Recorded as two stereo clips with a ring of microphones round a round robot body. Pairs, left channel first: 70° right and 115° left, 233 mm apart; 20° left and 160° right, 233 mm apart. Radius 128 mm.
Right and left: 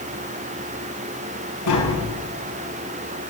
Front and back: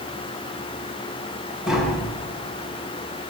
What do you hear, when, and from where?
1.7 s tapping: 70° right, 7 m